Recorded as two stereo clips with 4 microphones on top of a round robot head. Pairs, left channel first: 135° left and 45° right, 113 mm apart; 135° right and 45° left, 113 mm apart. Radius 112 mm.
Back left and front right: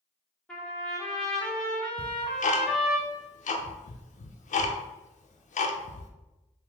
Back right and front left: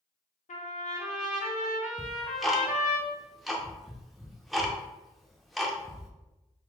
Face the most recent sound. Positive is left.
turn(degrees=135)